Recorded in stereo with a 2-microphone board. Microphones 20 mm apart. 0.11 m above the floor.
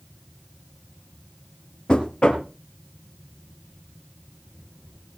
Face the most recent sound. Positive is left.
turn(degrees=50)  # may be behind; listen again after turning